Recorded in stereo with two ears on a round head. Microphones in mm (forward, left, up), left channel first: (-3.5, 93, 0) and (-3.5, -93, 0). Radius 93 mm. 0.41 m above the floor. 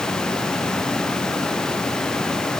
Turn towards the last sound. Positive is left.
No sound to turn to.